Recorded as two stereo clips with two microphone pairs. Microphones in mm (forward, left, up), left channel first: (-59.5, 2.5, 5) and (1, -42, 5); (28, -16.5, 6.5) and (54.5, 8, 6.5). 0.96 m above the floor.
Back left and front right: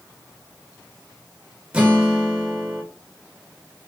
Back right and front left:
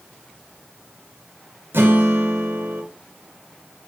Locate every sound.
1.7 s a guitar: 40° left, 2 m